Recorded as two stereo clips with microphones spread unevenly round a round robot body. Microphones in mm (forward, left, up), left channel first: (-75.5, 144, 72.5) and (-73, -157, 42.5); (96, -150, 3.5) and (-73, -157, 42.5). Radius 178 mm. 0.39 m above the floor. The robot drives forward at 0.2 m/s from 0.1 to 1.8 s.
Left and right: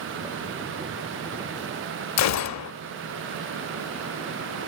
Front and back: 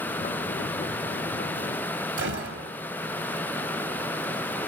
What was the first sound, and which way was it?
A gunshot, 130° left.